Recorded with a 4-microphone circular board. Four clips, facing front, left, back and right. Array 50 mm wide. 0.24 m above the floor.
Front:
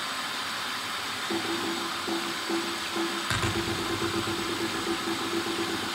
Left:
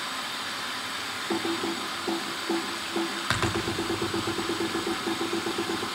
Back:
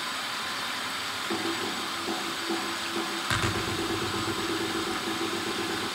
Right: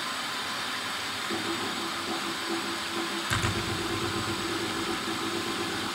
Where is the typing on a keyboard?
90° left, 4 m.